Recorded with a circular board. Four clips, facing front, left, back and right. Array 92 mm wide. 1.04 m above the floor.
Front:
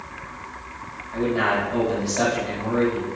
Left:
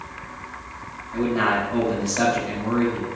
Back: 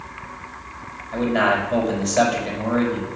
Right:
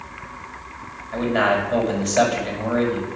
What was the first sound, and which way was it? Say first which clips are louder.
A man speaking: right 2 dB, back 3 dB; 125° right.